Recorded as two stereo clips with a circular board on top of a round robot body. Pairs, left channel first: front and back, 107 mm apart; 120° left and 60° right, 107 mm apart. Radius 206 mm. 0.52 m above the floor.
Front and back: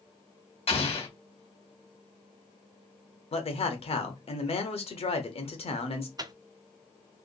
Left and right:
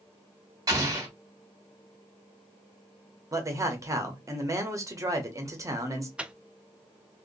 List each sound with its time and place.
0.7 s an explosion: 5° right, 1.9 m
3.3 s a man speaking: 5° right, 1.2 m
6.2 s a microwave: 140° right, 0.6 m